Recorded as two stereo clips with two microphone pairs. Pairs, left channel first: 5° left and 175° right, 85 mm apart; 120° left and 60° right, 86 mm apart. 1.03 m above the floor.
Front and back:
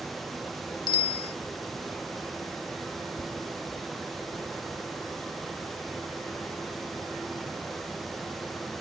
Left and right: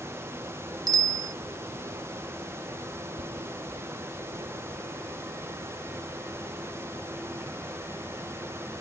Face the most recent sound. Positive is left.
turn(degrees=-65)